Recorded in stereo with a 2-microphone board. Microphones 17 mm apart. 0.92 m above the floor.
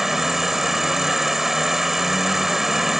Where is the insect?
20° right (ahead or behind).